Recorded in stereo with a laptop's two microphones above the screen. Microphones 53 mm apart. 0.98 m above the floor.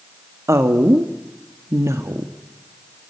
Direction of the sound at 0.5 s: 75° right (ahead or behind).